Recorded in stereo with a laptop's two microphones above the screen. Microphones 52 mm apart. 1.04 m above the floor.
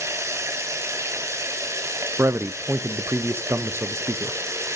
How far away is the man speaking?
About 0.6 m.